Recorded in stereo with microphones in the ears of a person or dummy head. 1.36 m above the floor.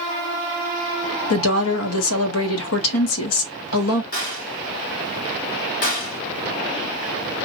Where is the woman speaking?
75° left (ahead or behind), 0.9 m.